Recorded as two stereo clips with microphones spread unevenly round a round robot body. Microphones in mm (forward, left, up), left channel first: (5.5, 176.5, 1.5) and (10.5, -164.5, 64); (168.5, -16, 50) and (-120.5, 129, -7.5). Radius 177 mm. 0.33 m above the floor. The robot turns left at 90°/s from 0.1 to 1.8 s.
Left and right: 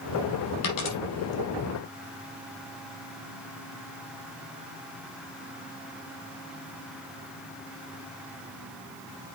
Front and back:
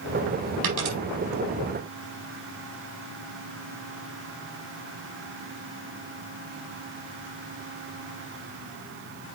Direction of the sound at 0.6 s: 135° left.